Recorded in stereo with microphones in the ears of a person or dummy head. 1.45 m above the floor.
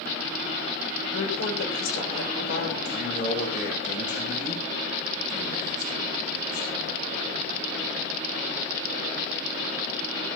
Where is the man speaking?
45° left (ahead or behind), 8 m.